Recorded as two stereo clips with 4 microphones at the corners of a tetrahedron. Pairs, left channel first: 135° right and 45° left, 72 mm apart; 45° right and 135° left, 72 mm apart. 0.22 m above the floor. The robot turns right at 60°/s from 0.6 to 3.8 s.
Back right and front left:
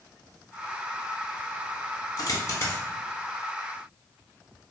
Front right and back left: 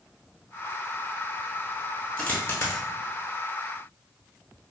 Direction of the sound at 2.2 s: 115° right.